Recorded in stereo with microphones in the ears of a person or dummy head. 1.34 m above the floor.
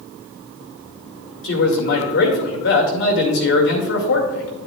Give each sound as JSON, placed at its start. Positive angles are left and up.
{"t": 1.4, "sound": "a man speaking", "side_deg": 65, "distance_m": 2.0}